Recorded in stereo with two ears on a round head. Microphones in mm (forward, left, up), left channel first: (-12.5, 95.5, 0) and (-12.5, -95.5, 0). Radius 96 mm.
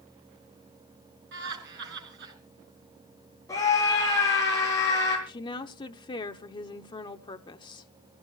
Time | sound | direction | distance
1.3 | laughter | 50° right (ahead or behind) | 7 m
3.5 | a scream | 15° left (ahead or behind) | 9 m
5.3 | a woman speaking | 20° left (ahead or behind) | 0.9 m